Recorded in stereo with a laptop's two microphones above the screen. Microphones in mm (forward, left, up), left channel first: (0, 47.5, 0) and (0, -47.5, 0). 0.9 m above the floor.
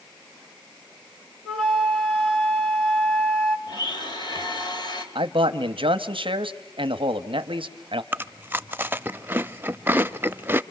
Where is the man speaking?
65° right (ahead or behind), 0.9 m.